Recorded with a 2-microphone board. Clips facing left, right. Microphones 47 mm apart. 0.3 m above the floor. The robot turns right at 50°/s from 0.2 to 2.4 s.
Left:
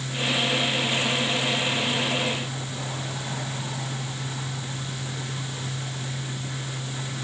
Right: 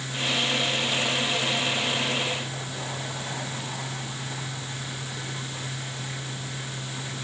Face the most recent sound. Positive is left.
No sound to turn to.